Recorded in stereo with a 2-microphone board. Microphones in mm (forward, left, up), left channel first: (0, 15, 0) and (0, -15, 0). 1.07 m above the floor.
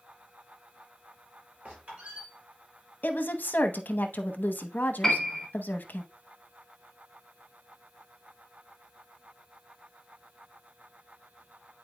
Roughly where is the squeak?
Right.